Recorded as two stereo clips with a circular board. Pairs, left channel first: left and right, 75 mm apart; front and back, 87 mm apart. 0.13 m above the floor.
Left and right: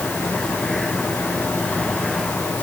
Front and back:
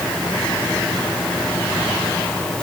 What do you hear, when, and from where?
Only background noise.